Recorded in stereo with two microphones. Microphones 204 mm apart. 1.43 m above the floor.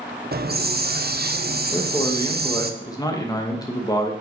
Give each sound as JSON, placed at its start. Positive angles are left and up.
{"t": 0.3, "sound": "a hiss", "side_deg": -50, "distance_m": 0.8}
{"t": 1.7, "sound": "a man speaking", "side_deg": 20, "distance_m": 1.9}